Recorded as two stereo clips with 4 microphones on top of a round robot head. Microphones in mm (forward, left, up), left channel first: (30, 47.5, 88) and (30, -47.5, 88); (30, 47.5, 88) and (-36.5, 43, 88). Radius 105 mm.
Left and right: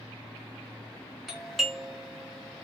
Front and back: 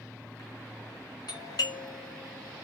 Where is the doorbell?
Straight ahead, 1.5 m.